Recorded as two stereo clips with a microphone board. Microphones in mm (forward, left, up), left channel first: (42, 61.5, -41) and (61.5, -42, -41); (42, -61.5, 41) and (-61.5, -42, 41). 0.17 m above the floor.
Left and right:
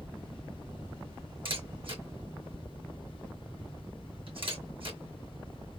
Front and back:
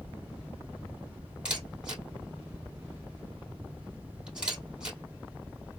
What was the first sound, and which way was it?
A camera shutter, 110° right.